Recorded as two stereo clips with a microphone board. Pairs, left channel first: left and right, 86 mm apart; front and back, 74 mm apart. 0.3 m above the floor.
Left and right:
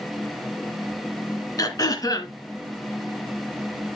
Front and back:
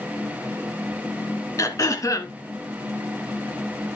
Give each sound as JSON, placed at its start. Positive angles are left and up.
{"t": 1.6, "sound": "throat clearing", "azimuth_deg": 45, "distance_m": 1.6}